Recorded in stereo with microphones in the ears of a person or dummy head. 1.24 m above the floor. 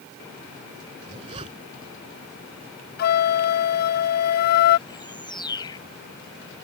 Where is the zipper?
35° right (ahead or behind).